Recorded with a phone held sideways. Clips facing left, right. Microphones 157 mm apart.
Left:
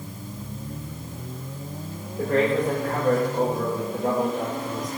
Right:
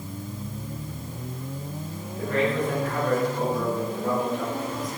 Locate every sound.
2.2 s a man speaking: 45° left (ahead or behind), 3.5 m